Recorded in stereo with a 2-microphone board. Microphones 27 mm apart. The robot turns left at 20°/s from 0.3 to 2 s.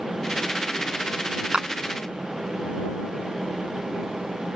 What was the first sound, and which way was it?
A clap, 45° right (ahead or behind).